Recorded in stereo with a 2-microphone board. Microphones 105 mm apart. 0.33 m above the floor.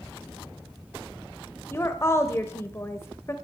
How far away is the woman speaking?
About 1.0 m.